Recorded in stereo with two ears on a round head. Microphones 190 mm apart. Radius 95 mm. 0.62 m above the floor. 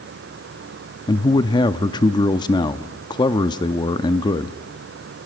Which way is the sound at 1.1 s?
20° left (ahead or behind).